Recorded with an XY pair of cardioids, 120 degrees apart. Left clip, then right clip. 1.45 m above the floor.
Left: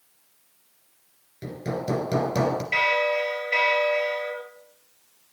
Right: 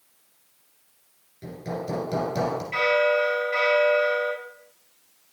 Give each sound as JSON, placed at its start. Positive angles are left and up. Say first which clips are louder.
{"t": 1.4, "sound": "hammering", "louder": "left 2 dB", "azimuth_deg": 50, "distance_m": 1.9}
{"t": 2.7, "sound": "a bell", "louder": "right 2 dB", "azimuth_deg": 60, "distance_m": 4.0}